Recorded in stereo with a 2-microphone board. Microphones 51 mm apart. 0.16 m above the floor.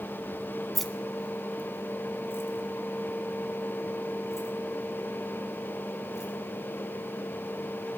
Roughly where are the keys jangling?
Centre.